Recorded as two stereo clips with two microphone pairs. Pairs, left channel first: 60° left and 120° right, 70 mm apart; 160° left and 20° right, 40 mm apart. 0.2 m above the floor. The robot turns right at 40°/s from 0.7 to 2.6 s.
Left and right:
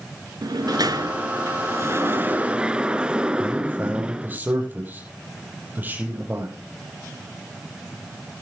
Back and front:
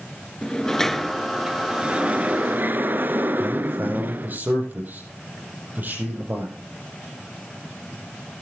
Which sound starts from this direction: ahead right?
A man speaking, at 3.4 s.